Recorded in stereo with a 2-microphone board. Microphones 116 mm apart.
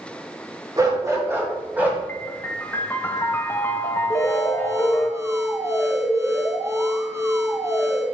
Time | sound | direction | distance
0.8 | a dog barking | 30° right (ahead or behind) | 1.6 m
2.1 | a piano | 20° left (ahead or behind) | 0.7 m
4.1 | an alarm | 20° right (ahead or behind) | 1.5 m